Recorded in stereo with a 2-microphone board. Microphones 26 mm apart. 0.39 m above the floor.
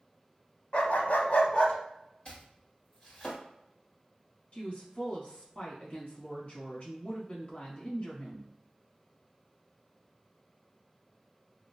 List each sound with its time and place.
0.7 s a dog barking: 50° left (ahead or behind), 0.7 m; by 1.8 s 40° left (ahead or behind), 1.1 m
2.2 s chopping: 40° left (ahead or behind), 1.8 m
4.5 s a woman speaking: 50° left (ahead or behind), 1.4 m